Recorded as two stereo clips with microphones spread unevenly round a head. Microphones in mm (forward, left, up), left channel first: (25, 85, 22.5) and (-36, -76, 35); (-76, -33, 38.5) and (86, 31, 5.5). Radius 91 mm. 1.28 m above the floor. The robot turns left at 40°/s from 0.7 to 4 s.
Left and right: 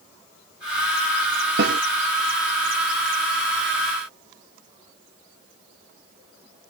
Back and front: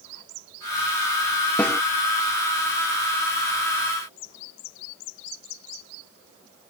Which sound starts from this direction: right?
A snare drum, at 1.6 s.